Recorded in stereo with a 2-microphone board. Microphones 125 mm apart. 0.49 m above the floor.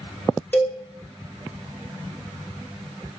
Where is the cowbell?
15° left (ahead or behind), 1.2 m.